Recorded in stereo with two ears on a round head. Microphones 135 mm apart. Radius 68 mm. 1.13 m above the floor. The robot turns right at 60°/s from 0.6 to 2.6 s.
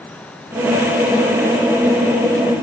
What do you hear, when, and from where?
Only background noise.